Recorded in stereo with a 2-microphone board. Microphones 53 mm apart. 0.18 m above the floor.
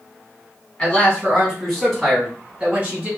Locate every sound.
0.8 s a man speaking: 25° left (ahead or behind), 1.7 m; by 3.1 s 25° right (ahead or behind), 1.7 m